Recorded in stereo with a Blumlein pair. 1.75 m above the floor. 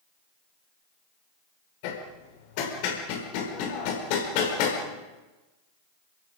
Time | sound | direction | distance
1.8 | hammering | 45° left | 5 m